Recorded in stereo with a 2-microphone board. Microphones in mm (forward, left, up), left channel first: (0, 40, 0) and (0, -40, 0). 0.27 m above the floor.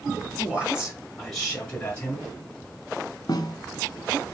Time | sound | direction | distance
0.4 | a man speaking | 20° right (ahead or behind) | 1.5 m
3.3 | a snare drum | 55° left (ahead or behind) | 0.6 m